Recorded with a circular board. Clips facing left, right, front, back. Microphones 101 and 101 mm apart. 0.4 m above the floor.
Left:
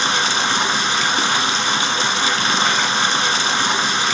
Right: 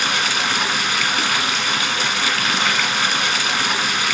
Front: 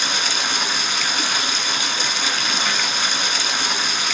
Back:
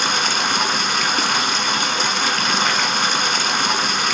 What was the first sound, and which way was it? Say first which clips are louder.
Running water: left 2 dB, back 4 dB; 150° left.